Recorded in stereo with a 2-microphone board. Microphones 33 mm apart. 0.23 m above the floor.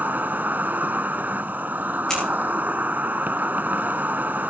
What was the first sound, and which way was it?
An insect, 60° right (ahead or behind).